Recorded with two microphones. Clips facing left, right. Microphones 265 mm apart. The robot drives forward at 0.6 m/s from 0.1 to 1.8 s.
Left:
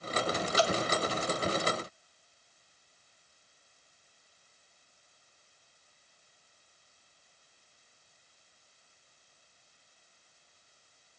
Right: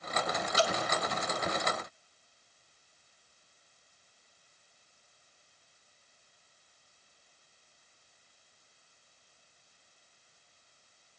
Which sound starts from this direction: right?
Dripping, at 0.6 s.